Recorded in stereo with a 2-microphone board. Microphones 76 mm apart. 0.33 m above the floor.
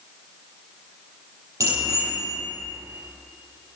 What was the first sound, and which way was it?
A bicycle bell, 45° right (ahead or behind).